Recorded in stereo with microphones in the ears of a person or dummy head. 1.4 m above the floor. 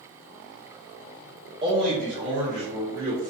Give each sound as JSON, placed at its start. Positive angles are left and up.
{"t": 1.6, "sound": "a man speaking", "side_deg": -25, "distance_m": 0.5}